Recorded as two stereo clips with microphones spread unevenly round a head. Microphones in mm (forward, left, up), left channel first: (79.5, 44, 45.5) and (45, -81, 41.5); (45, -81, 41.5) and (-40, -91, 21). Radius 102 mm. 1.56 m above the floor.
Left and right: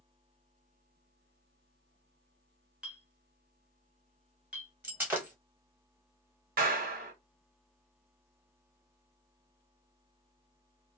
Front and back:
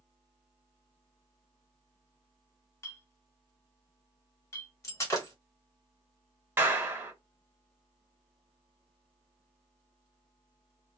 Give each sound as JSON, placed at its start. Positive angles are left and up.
{"t": 2.8, "sound": "a clink", "azimuth_deg": -25, "distance_m": 1.1}
{"t": 4.8, "sound": "breaking glass", "azimuth_deg": -30, "distance_m": 1.3}
{"t": 6.6, "sound": "a clap", "azimuth_deg": -105, "distance_m": 1.1}